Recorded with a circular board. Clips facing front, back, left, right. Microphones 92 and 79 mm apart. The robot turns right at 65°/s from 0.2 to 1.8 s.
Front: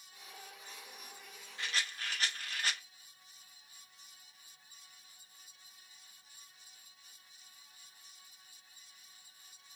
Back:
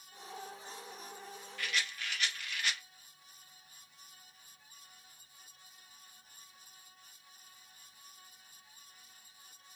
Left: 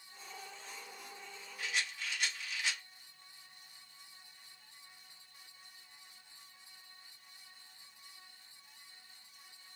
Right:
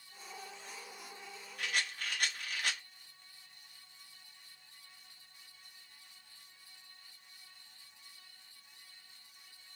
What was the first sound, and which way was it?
A rattle, 65° right.